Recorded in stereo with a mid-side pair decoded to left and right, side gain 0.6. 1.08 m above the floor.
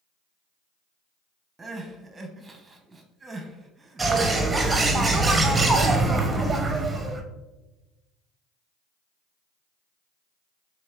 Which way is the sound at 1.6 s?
20° right.